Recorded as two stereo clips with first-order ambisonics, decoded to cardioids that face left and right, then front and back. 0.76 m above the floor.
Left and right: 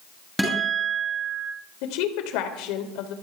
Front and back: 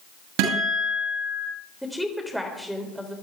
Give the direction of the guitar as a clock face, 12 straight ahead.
6 o'clock.